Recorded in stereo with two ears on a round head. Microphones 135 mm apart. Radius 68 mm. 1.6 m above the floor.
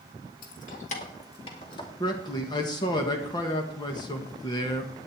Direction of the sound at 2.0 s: 30° left (ahead or behind).